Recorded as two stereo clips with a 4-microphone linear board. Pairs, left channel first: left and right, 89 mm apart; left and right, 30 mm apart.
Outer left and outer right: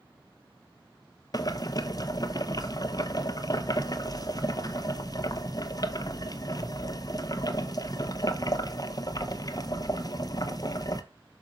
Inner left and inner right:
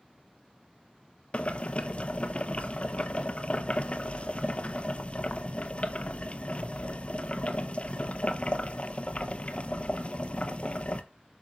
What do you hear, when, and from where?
1.3 s boiling: 45° left (ahead or behind), 0.7 m